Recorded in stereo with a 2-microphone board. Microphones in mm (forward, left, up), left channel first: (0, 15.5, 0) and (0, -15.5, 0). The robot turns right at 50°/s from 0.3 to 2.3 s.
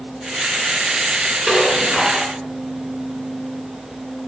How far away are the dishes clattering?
About 3 m.